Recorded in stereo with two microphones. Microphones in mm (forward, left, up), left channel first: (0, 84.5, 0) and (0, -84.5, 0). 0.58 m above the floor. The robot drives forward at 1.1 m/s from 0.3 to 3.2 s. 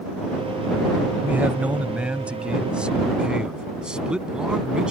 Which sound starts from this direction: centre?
A man speaking, at 1.2 s.